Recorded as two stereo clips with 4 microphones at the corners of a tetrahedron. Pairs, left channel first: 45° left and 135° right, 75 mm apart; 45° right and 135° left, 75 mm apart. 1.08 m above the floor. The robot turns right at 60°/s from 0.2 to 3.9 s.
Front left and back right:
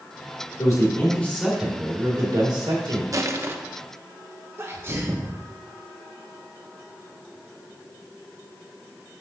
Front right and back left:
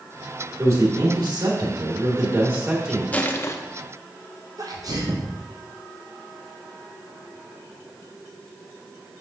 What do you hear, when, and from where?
0.6 s a man speaking: 80° left, 2.5 m; by 3.0 s 135° right, 2.5 m
3.1 s crushing: 110° right, 0.6 m; by 3.5 s 85° right, 0.6 m
4.6 s a sneeze: 170° left, 0.7 m